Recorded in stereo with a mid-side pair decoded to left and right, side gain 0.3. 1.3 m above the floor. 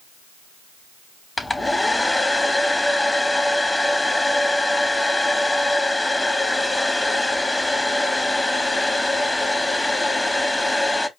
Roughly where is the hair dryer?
Ahead.